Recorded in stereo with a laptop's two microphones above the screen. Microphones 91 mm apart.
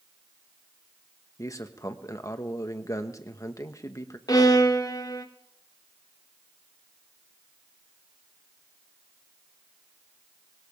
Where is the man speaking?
40° left (ahead or behind), 1.3 m.